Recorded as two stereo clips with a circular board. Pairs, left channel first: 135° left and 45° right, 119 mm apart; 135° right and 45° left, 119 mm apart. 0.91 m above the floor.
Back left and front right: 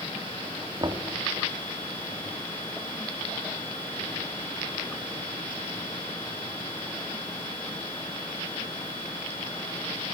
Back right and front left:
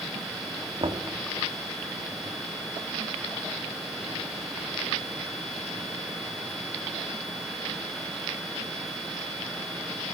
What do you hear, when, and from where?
0.8 s knocking: 5° left, 1.8 m